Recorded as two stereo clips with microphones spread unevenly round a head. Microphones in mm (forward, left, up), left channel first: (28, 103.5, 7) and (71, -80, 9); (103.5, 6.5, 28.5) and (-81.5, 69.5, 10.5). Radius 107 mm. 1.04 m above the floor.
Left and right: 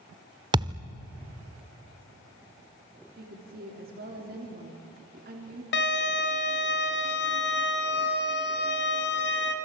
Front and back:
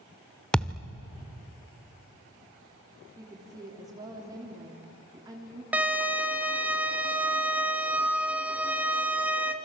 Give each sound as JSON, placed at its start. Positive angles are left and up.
{"t": 0.5, "sound": "a thud", "azimuth_deg": -85, "distance_m": 0.7}
{"t": 3.2, "sound": "a woman speaking", "azimuth_deg": -125, "distance_m": 3.0}
{"t": 5.7, "sound": "a violin", "azimuth_deg": 80, "distance_m": 2.0}